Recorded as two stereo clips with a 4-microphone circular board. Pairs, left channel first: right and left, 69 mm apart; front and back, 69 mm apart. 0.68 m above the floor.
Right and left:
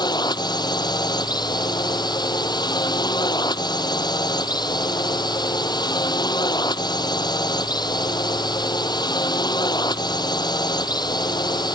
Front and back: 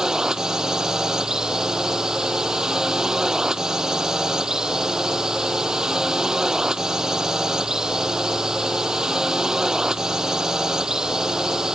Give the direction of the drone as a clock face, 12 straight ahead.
3 o'clock.